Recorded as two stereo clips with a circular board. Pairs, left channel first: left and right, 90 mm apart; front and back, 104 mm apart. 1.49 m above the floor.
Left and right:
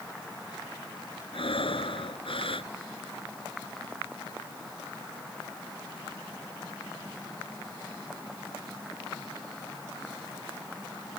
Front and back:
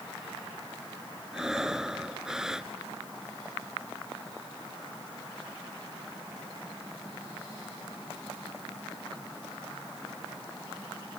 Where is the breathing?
95° left.